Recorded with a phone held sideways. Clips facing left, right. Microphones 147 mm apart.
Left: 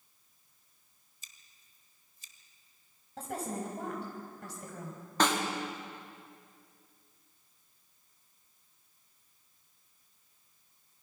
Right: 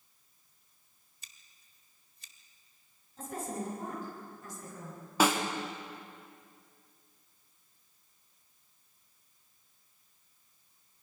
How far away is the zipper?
I don't hear a zipper.